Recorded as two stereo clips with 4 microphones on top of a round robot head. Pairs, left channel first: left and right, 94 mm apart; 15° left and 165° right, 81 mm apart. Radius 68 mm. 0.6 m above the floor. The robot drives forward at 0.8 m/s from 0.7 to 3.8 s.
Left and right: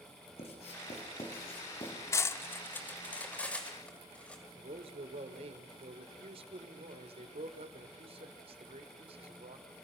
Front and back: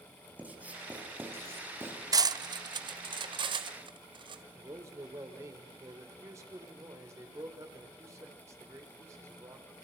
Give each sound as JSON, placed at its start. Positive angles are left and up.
{"t": 0.4, "sound": "writing", "azimuth_deg": 120, "distance_m": 4.0}
{"t": 2.1, "sound": "cutlery clinking", "azimuth_deg": 150, "distance_m": 0.8}
{"t": 4.6, "sound": "a man speaking", "azimuth_deg": -105, "distance_m": 2.5}